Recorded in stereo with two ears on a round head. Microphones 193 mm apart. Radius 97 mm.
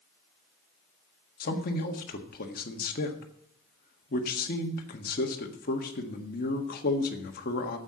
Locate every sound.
1.4 s a man speaking: 45° left (ahead or behind), 1.5 m